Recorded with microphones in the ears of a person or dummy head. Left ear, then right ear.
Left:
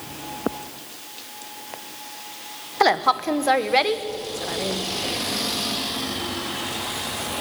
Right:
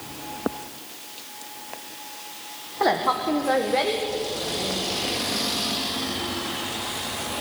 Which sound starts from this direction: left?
A woman speaking, at 2.8 s.